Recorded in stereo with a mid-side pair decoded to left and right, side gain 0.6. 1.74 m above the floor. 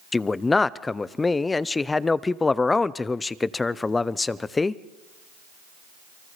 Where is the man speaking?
20° left, 0.9 m.